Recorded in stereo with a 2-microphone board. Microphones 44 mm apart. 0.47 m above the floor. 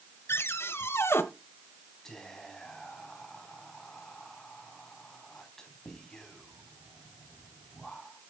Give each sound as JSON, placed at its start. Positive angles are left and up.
{"t": 0.3, "sound": "a cupboard door", "side_deg": 70, "distance_m": 0.9}
{"t": 2.0, "sound": "whispering", "side_deg": 15, "distance_m": 3.0}